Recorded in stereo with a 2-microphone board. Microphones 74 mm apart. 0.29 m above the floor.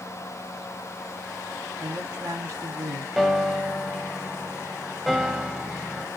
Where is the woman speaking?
50° right (ahead or behind), 2.5 m.